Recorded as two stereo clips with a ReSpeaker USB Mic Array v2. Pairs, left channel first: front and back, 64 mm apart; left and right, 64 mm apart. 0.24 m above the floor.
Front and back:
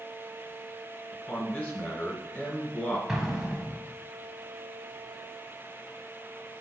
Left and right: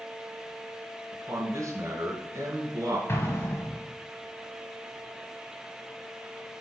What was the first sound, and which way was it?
A man speaking, 60° right.